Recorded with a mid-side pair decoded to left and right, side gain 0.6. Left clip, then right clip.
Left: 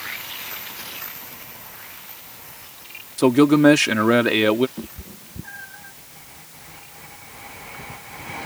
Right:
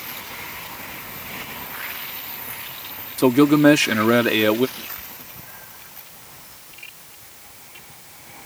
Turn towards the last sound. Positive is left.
turn(degrees=55)